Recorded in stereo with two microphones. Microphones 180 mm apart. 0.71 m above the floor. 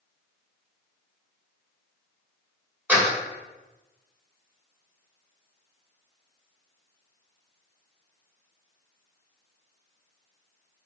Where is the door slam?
5° right (ahead or behind), 2.0 m.